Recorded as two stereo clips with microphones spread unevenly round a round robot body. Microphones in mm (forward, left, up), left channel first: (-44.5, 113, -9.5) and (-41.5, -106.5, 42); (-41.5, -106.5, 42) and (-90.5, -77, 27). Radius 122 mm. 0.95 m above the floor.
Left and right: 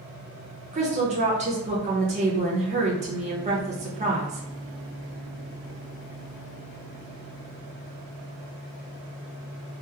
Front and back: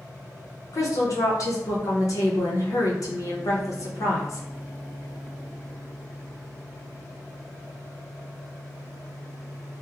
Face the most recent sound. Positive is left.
turn(degrees=-25)